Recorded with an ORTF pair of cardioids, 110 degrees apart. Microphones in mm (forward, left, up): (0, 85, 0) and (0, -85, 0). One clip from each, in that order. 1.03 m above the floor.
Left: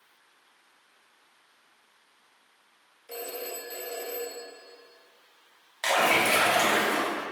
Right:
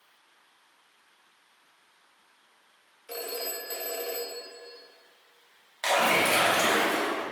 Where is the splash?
5° left, 1.7 m.